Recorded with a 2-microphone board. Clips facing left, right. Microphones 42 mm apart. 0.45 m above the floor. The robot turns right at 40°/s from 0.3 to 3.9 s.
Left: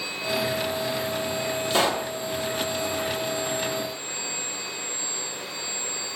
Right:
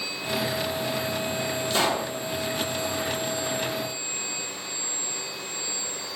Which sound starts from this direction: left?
A pop, at 1.7 s.